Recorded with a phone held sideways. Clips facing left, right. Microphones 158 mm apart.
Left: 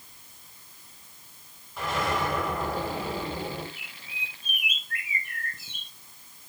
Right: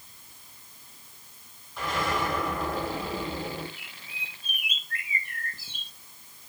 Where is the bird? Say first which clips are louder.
Left 1 dB; 35° right (ahead or behind), 2 m.